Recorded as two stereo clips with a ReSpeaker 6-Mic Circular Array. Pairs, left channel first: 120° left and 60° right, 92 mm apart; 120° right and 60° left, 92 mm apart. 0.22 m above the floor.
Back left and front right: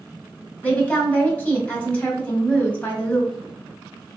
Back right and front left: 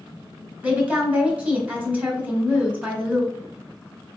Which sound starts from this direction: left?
A woman speaking, at 0.6 s.